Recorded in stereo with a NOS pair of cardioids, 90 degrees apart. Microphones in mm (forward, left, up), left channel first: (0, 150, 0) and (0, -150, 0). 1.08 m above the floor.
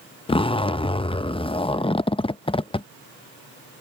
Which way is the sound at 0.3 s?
20° left.